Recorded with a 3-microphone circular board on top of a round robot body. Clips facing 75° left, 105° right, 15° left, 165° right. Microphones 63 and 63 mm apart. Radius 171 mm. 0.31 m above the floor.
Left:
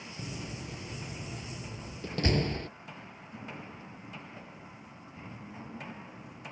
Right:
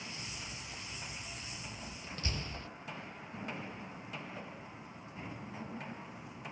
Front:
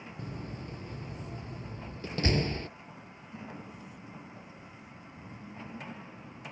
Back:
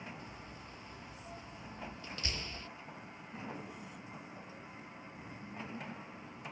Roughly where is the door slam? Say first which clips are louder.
Left 5 dB, front 8 dB; ahead left.